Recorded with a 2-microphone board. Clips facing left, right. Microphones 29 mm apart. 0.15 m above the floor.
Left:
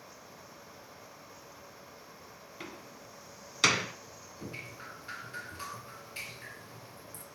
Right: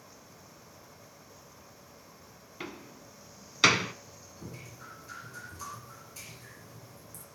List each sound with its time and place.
2.6 s a door slam: 15° right (ahead or behind), 1.0 m
4.4 s dripping: 45° left (ahead or behind), 3 m